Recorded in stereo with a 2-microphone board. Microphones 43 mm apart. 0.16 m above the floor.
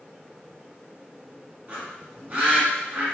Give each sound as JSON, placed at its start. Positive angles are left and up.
{"t": 1.7, "sound": "a bird", "side_deg": -30, "distance_m": 1.2}